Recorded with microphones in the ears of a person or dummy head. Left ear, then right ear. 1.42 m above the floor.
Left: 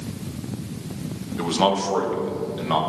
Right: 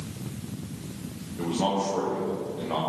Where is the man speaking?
60° left (ahead or behind), 1.1 m; by 2.8 s 75° left (ahead or behind), 2.0 m.